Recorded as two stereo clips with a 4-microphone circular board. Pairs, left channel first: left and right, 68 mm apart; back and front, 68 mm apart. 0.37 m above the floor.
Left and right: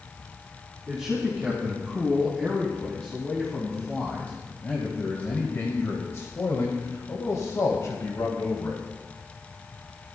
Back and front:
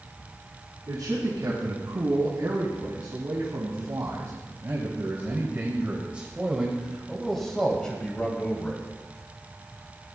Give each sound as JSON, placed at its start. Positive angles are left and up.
{"t": 0.9, "sound": "a man speaking", "azimuth_deg": 0, "distance_m": 3.5}